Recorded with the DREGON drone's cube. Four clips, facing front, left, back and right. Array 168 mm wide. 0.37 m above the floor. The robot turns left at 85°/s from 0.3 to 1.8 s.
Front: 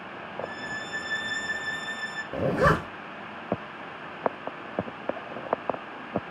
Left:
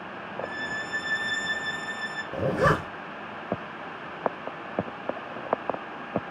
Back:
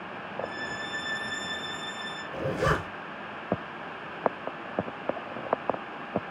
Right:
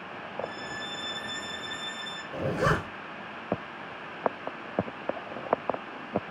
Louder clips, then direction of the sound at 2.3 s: Left 4 dB, front 5 dB; 35° left.